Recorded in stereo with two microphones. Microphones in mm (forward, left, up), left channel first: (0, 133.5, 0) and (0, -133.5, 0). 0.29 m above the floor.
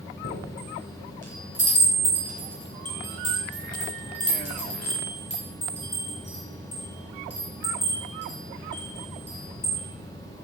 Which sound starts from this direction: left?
A chime, at 0.2 s.